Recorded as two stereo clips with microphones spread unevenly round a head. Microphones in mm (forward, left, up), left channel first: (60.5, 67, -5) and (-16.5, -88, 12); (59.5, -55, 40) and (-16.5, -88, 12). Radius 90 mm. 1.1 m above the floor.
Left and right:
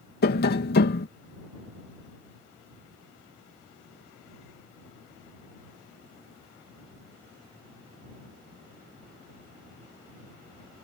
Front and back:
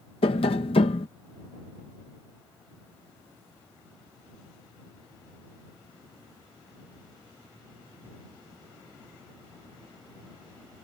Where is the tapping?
50° left.